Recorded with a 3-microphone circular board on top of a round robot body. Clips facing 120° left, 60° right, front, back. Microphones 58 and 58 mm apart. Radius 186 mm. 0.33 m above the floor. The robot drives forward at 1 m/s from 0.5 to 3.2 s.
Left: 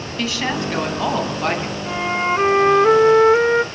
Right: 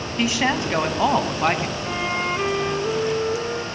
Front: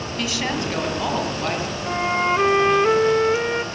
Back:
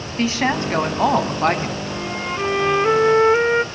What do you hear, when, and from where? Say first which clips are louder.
0.2 s a woman speaking: right 1 dB, back 6 dB; 130° right, 4.5 m; by 1.8 s 140° right, 5.5 m
1.9 s a flute: left 6 dB, front 5 dB; 40° left, 1.2 m; by 3.6 s 120° left, 0.9 m